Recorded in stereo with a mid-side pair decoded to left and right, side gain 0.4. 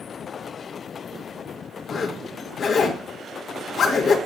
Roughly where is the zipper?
Ahead left.